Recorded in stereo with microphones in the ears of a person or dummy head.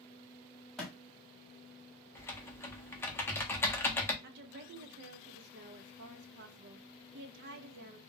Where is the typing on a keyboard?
10° left (ahead or behind), 0.7 m.